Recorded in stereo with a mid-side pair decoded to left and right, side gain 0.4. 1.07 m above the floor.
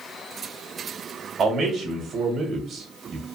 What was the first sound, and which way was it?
A man speaking, 55° right.